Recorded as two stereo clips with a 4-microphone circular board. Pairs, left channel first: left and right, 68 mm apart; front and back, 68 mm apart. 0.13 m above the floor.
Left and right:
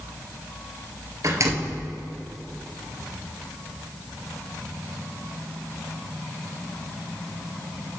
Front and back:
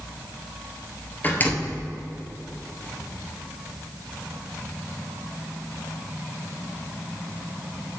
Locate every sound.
1.2 s a door slam: 60° right, 1.7 m